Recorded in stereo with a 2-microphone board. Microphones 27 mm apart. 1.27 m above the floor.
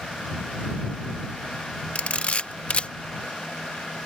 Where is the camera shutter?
50° left (ahead or behind).